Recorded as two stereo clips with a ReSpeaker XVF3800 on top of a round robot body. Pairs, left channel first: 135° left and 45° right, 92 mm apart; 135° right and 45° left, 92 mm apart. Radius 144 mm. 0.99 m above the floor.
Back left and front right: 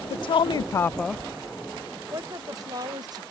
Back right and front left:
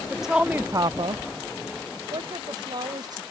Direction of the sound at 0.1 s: 135° left.